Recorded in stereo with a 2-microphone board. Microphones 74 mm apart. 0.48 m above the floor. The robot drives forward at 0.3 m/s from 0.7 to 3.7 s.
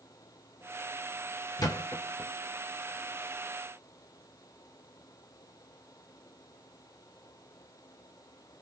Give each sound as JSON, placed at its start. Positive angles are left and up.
{"t": 1.6, "sound": "a thud", "side_deg": 55, "distance_m": 1.5}